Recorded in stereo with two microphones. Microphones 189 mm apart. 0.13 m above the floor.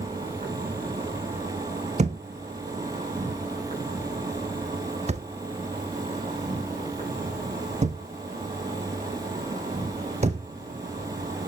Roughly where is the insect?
Right.